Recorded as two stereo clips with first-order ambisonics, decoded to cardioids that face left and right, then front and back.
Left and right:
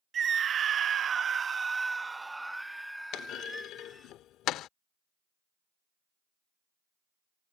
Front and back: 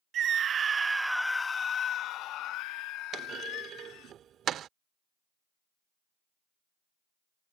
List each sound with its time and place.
0.1 s a scream: 145° right; by 4.1 s 5° left
3.1 s a clunk: 130° left